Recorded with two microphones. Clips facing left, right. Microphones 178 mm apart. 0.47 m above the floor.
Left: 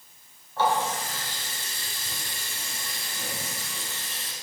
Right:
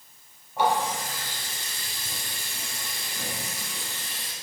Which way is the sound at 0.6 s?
15° right (ahead or behind).